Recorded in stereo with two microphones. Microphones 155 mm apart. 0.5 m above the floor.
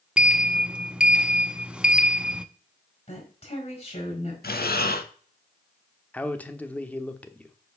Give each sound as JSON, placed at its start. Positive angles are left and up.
{"t": 0.2, "sound": "a sliding door", "side_deg": -5, "distance_m": 0.6}
{"t": 3.1, "sound": "a woman speaking", "side_deg": 45, "distance_m": 4.5}
{"t": 4.4, "sound": "breathing", "side_deg": 80, "distance_m": 0.9}
{"t": 6.1, "sound": "a man speaking", "side_deg": 10, "distance_m": 0.9}